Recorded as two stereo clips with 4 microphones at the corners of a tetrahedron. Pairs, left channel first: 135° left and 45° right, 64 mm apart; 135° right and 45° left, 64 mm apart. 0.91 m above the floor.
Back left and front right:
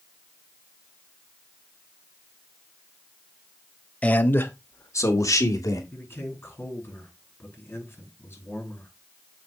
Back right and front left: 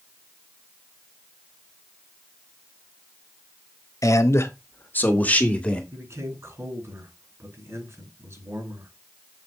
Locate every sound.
4.0 s a man speaking: 160° right, 1.0 m; by 5.8 s 155° left, 1.9 m
5.9 s a man speaking: 85° left, 5.5 m